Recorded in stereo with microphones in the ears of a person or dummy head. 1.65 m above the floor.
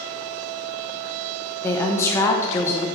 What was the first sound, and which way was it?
A woman speaking, 20° left (ahead or behind).